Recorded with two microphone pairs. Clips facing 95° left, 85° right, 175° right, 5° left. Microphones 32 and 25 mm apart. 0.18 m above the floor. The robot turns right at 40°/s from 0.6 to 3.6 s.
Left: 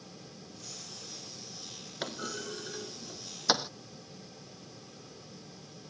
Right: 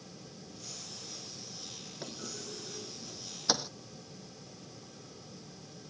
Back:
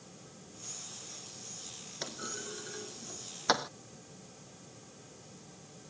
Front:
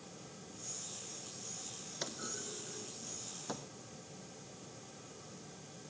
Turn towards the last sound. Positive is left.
turn(degrees=165)